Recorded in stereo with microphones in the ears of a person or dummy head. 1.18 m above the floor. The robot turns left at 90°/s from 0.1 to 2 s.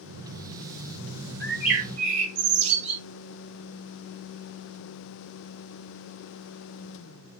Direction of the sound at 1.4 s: 20° left.